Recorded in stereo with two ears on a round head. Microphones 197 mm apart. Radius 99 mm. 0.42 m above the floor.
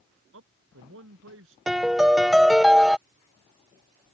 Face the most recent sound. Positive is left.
turn(degrees=0)  # may be behind; listen again after turning